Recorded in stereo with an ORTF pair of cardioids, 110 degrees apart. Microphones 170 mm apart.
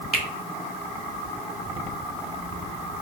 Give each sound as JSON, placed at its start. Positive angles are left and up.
{"t": 0.1, "sound": "a finger snap", "azimuth_deg": 0, "distance_m": 1.5}